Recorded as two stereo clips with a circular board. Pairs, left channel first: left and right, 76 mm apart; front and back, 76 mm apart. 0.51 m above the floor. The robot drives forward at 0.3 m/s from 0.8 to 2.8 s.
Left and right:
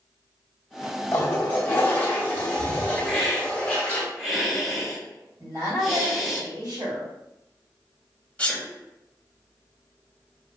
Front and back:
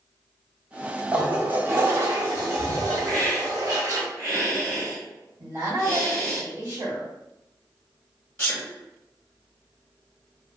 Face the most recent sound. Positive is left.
turn(degrees=40)